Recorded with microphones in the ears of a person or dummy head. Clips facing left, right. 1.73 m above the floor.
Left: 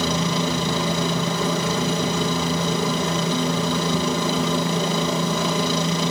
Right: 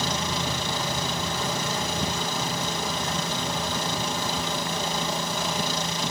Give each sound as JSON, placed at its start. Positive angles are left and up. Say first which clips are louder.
{"t": 0.0, "sound": "a helicopter", "louder": "left 7 dB", "side_deg": 65}